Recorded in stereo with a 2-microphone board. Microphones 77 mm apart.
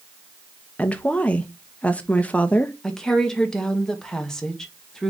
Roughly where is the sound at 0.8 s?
Centre.